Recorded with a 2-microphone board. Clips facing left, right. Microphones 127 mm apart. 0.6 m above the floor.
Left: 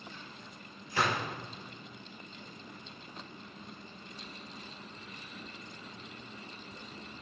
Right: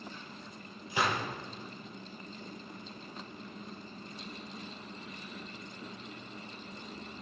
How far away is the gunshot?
About 6.5 m.